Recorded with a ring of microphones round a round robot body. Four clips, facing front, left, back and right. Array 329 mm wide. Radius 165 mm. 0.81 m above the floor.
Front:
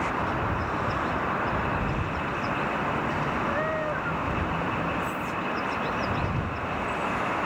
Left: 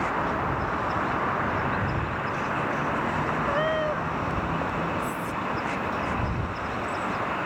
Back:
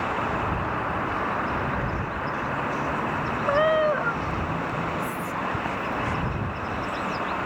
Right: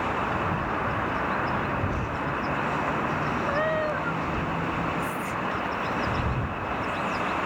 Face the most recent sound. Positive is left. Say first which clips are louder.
# even, back 1 dB
turn(degrees=170)